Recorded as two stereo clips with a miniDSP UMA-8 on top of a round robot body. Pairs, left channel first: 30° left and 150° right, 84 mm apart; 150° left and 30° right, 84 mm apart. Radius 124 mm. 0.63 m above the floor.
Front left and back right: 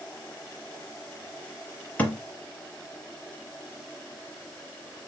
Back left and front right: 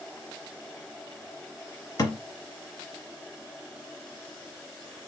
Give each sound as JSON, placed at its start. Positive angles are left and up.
{"t": 2.0, "sound": "a thud", "azimuth_deg": 105, "distance_m": 0.6}